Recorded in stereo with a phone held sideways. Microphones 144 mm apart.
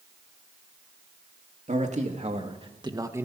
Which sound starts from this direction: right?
A man speaking, at 1.7 s.